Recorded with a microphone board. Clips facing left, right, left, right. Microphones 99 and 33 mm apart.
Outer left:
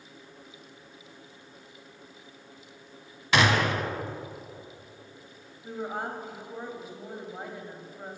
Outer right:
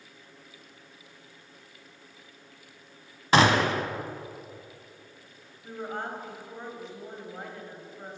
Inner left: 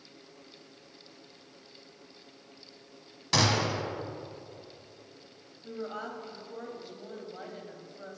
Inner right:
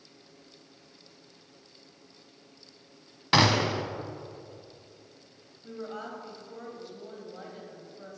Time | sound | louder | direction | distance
3.3 | a gunshot | outer right 3 dB, inner right 4 dB | 35° right (ahead or behind) | 0.8 m
5.6 | a woman speaking | outer left 1 dB, inner left 1 dB | 10° left (ahead or behind) | 1.7 m